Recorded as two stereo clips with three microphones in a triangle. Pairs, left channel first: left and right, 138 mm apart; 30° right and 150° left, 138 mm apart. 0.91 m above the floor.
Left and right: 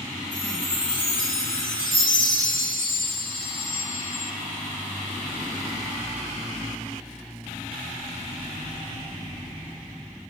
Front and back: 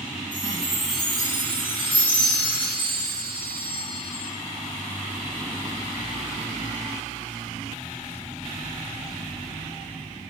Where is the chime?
100° left, 2.5 m.